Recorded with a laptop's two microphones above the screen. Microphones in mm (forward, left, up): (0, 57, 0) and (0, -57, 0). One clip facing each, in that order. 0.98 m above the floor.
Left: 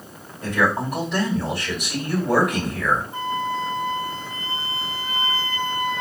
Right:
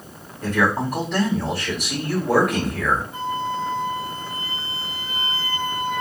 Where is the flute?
30° left (ahead or behind), 3 m.